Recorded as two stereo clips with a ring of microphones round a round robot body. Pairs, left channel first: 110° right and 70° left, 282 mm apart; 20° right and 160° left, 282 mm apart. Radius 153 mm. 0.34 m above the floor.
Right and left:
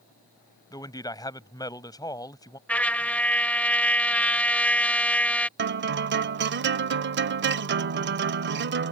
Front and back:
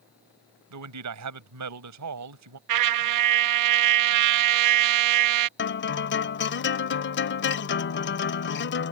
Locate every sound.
0.7 s a man speaking: 170° left
2.7 s a trumpet: 165° left
5.6 s a guitar: 20° left